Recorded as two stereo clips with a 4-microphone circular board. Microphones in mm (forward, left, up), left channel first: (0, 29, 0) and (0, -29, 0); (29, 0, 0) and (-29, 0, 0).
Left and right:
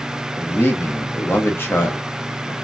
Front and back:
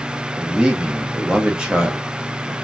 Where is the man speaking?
115° left, 0.7 m.